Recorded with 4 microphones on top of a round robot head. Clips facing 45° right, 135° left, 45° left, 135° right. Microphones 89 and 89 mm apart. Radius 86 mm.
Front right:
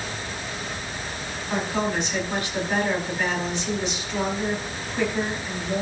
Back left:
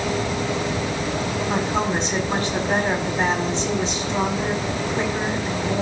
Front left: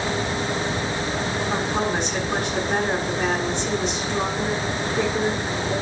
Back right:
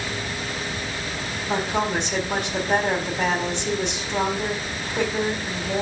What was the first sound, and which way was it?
A woman speaking, 165° right.